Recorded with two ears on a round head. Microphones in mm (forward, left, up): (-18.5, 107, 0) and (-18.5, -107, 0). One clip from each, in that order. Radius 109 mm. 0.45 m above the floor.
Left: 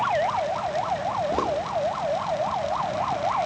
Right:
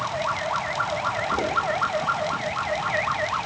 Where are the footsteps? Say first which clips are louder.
Even; 30° left (ahead or behind), 3 m.